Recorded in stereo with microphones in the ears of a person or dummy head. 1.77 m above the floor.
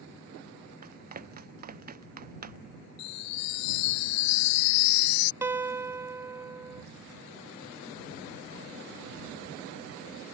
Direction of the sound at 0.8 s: 45° right (ahead or behind).